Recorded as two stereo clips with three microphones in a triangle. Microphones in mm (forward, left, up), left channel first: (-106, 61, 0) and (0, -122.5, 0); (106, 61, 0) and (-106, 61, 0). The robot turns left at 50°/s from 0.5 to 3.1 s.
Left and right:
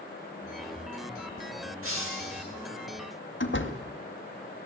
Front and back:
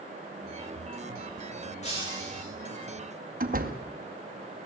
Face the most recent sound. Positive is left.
turn(degrees=135)